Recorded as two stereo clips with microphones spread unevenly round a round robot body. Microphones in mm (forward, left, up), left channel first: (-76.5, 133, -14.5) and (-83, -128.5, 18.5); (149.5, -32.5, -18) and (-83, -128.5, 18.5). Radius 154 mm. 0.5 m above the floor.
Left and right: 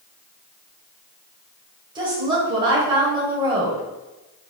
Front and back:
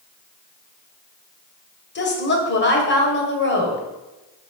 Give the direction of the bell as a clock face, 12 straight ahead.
I don't hear a bell.